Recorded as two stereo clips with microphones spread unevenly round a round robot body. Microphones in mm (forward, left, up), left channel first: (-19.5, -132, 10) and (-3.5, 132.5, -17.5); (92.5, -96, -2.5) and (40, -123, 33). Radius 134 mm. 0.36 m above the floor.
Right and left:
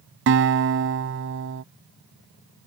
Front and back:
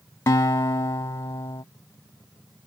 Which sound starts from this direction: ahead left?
A guitar, at 0.3 s.